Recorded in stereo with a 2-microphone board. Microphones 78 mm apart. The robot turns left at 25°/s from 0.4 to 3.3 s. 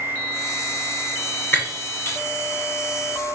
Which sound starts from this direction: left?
Breaking glass, at 1.5 s.